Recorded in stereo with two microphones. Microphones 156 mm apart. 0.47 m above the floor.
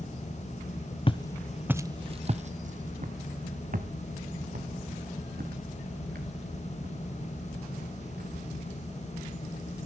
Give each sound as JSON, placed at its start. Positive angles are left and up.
{"t": 1.1, "sound": "footsteps", "side_deg": 35, "distance_m": 0.7}